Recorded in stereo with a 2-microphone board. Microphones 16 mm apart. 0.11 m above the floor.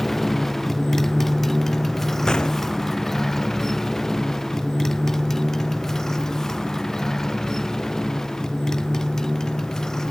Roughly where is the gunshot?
Left.